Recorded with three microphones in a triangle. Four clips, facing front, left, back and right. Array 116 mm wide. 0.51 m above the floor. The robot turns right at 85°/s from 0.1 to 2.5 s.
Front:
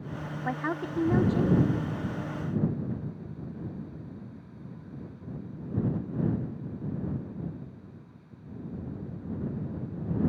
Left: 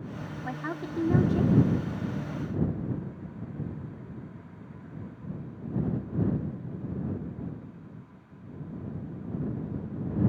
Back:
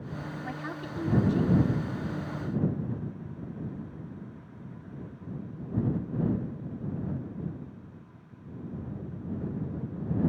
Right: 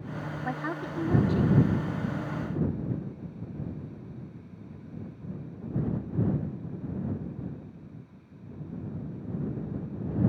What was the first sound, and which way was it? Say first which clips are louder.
A woman speaking: right 1 dB, front 10 dB; 30° right.